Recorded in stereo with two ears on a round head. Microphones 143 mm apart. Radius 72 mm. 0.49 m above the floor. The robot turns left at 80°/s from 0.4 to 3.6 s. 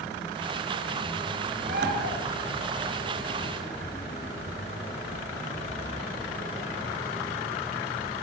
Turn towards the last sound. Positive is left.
turn(degrees=155)